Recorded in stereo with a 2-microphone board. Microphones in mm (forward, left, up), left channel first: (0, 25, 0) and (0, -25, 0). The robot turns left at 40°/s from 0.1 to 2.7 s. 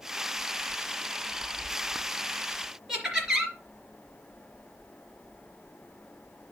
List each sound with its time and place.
2.9 s laughter: 10° right (ahead or behind), 3 m